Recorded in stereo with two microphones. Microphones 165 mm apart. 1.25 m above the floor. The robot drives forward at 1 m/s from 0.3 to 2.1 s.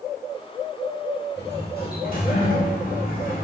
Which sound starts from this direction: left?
A sliding door, at 1.4 s.